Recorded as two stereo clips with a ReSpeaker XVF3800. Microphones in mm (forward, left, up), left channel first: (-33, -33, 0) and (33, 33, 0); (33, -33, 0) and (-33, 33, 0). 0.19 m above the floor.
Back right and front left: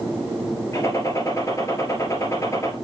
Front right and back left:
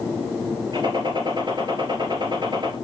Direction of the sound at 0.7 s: 170° left.